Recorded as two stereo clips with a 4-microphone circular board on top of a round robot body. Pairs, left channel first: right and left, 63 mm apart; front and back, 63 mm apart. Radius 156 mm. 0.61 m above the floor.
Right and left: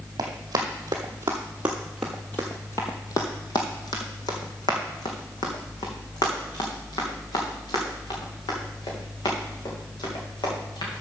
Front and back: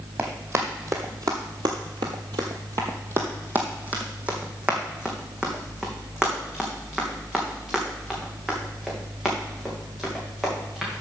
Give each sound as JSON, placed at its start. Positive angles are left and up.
{"t": 0.2, "sound": "running footsteps", "azimuth_deg": 120, "distance_m": 1.2}